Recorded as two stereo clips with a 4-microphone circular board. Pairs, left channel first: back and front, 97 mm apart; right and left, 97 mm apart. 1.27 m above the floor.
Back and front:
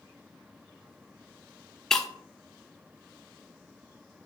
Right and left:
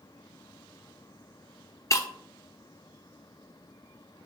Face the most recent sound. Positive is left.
turn(degrees=-100)